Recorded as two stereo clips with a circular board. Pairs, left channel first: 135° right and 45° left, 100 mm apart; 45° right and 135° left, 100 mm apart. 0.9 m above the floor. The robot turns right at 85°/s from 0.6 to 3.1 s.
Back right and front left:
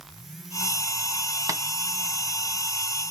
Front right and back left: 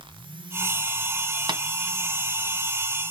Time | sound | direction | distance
1.5 | tapping | 95° left | 1.7 m